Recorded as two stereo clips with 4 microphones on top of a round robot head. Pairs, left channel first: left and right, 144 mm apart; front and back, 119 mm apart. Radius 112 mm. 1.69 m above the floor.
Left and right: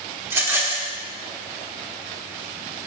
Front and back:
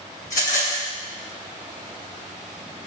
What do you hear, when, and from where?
0.2 s a rattle: 20° right, 1.4 m